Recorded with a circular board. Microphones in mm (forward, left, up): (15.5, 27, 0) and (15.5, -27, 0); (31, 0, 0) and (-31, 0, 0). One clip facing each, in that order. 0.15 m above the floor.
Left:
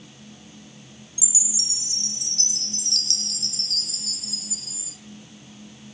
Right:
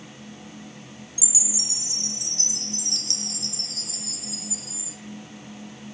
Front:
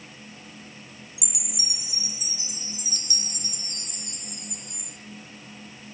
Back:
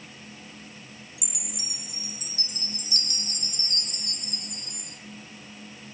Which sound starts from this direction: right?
A chime, at 1.2 s.